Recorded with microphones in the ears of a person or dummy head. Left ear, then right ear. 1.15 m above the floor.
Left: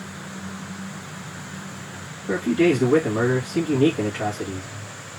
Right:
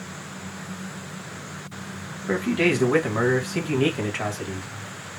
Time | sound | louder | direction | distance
2.3 | a man speaking | left 2 dB | 55° right (ahead or behind) | 1.2 m